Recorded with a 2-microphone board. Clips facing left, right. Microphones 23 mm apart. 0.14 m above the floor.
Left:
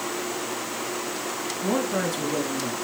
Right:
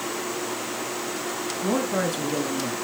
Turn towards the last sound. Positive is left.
turn(degrees=-5)  # may be behind; listen again after turning